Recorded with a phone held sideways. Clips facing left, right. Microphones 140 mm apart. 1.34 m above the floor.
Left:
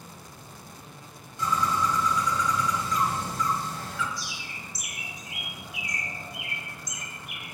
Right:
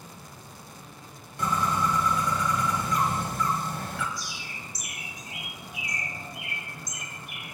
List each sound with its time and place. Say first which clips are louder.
1.4 s a bird: even; 60° right (ahead or behind), 1.0 m
4.2 s a bird: even; 40° right (ahead or behind), 3 m